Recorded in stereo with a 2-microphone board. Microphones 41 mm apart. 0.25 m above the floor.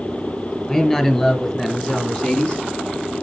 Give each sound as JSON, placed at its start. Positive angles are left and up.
{"t": 0.7, "sound": "a man speaking", "side_deg": 15, "distance_m": 4.5}